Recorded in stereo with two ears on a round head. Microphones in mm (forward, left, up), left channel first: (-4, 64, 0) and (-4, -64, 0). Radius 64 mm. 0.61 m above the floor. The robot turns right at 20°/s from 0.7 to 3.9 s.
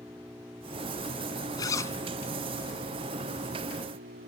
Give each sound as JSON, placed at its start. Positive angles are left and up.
{"t": 0.0, "sound": "an engine running", "azimuth_deg": -165}
{"t": 1.6, "sound": "a zipper", "side_deg": 30}